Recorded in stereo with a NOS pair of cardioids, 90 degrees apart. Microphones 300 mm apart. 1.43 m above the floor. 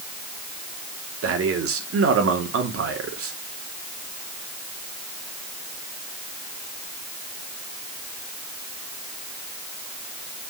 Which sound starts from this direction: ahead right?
A man speaking, at 1.2 s.